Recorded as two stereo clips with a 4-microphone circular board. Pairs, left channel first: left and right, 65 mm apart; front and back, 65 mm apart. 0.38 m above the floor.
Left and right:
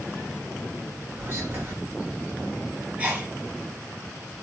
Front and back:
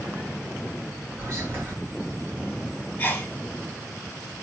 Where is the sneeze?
45° right, 1.5 m.